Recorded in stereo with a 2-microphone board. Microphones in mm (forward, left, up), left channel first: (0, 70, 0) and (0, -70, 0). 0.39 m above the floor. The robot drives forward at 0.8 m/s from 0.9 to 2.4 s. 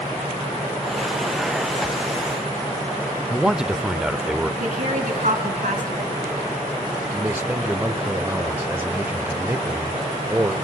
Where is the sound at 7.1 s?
15° right (ahead or behind), 1.2 m.